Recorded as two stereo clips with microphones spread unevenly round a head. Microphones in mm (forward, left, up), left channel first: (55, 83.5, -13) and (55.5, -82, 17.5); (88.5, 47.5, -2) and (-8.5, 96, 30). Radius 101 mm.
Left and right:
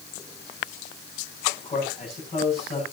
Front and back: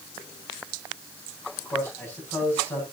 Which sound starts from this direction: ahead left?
A man speaking, at 1.6 s.